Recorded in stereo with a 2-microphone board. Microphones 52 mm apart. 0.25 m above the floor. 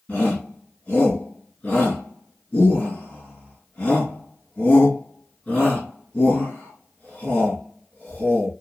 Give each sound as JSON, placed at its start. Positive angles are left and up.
{"t": 0.1, "sound": "a shout", "side_deg": 30, "distance_m": 2.5}